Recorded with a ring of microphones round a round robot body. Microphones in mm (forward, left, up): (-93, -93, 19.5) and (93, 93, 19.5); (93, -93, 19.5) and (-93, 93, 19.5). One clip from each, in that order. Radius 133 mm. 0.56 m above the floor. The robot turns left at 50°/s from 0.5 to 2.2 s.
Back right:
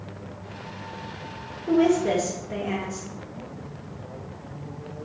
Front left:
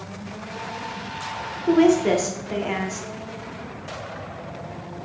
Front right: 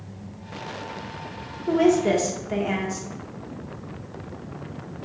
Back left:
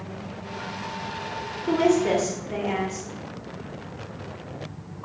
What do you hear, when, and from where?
1.7 s a woman speaking: 55° left, 0.9 m; by 3.0 s 30° left, 0.9 m